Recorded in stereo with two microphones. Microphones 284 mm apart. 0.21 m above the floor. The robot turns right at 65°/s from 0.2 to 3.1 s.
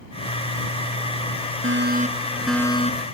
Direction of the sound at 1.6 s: 55° right.